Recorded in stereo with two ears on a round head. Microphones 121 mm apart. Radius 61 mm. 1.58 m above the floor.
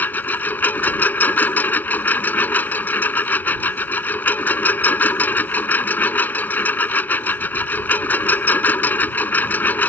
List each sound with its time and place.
0.0 s a lawn mower: 10° left (ahead or behind)